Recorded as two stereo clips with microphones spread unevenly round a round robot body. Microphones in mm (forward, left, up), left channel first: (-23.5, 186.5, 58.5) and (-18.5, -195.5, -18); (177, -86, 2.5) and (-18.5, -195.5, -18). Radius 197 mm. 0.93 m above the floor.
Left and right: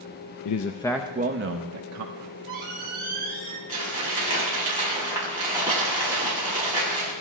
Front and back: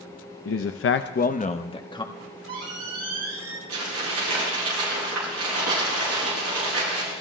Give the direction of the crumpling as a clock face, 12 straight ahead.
6 o'clock.